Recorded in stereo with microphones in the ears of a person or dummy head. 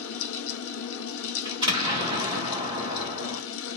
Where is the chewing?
I don't hear chewing.